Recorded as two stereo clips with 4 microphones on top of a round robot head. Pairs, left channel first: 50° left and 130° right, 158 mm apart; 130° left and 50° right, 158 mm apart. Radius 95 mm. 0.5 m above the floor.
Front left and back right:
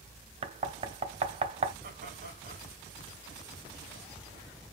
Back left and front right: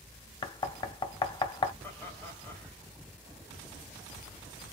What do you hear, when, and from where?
0.4 s knocking: 175° right, 0.6 m
1.8 s laughter: 150° right, 1.8 m